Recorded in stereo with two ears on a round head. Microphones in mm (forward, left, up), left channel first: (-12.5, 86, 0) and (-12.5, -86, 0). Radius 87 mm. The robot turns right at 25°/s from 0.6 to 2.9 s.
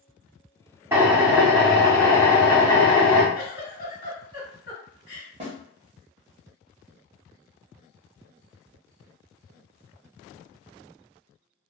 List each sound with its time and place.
0.9 s a drill: 15° right, 0.9 m; by 3.2 s 35° left, 0.9 m
3.4 s a giggle: 55° left (ahead or behind), 1.6 m
5.4 s a snare drum: 30° right (ahead or behind), 1.1 m